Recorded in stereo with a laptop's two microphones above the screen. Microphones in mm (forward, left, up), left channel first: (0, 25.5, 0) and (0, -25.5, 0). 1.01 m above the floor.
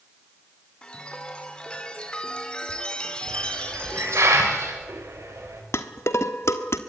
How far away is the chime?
About 3 m.